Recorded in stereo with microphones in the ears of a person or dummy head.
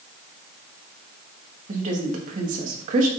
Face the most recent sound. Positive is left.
turn(degrees=-40)  # may be behind; listen again after turning